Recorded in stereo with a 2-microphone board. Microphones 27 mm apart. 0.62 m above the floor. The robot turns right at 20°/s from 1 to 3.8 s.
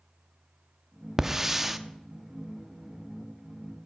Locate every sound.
1.2 s a hiss: 15° right (ahead or behind), 0.6 m; by 1.8 s 10° right (ahead or behind), 0.6 m